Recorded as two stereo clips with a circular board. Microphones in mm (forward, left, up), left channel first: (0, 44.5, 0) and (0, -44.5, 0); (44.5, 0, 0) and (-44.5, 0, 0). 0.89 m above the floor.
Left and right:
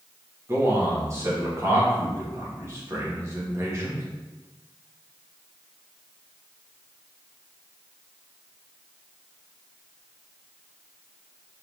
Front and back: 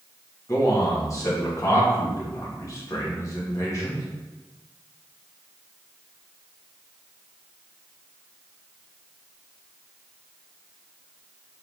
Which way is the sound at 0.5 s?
40° right.